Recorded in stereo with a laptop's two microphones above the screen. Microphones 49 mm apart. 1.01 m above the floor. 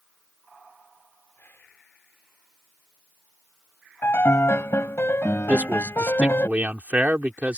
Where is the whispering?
50° left (ahead or behind).